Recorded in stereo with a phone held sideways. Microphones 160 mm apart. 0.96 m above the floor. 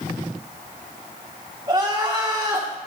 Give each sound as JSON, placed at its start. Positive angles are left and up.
{"t": 1.7, "sound": "crying", "side_deg": -25, "distance_m": 1.7}